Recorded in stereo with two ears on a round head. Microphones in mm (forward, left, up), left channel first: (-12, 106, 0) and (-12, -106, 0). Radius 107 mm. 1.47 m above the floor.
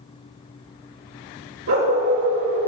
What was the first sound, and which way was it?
A dog barking, 60° right (ahead or behind).